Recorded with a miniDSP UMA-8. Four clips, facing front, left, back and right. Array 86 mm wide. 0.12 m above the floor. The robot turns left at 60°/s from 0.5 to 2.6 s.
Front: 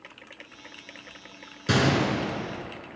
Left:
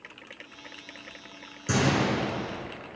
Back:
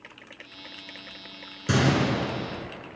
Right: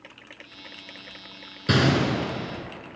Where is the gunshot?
70° right, 1.4 m; by 2.7 s 125° right, 1.4 m.